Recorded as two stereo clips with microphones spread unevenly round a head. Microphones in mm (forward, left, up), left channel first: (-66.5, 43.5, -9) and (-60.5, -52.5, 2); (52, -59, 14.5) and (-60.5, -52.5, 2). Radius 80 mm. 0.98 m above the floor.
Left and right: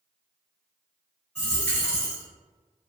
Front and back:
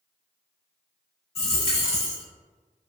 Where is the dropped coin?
10° left, 1.2 m.